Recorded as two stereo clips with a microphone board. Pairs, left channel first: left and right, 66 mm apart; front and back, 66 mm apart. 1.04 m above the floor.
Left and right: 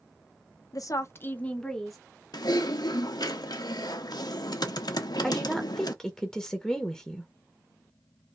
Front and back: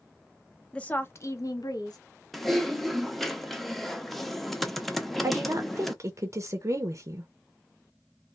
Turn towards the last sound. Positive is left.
turn(degrees=170)